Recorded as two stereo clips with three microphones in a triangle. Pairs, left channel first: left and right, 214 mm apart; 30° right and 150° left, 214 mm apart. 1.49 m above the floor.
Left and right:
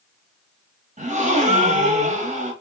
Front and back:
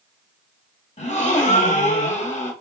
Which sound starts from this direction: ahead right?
A gasp, at 1.0 s.